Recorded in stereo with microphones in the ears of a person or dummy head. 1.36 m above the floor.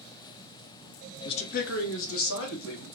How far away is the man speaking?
About 0.5 m.